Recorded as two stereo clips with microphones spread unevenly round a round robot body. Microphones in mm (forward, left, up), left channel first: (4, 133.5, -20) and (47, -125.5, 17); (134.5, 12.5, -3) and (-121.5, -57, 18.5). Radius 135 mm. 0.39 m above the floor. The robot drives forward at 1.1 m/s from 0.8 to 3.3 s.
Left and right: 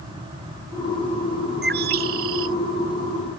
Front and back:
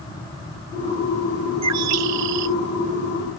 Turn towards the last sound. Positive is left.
turn(degrees=-145)